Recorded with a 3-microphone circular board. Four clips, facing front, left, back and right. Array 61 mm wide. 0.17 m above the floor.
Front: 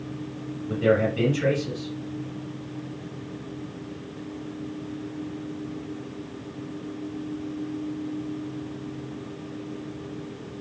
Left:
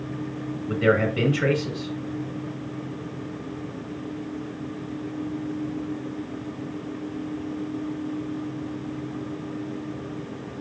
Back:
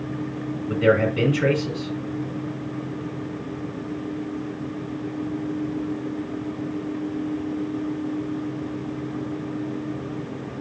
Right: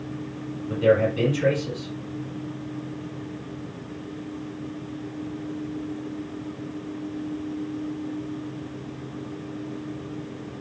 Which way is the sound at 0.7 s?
125° left.